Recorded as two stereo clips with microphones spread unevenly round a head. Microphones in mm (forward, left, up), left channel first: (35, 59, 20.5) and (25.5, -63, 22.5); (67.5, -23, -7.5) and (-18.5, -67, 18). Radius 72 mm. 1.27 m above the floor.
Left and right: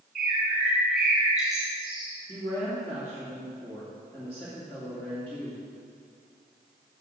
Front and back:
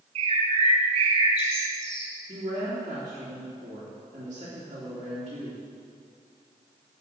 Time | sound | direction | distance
0.1 | a bird | straight behind | 3.5 m
2.3 | a woman speaking | 165° left | 2.5 m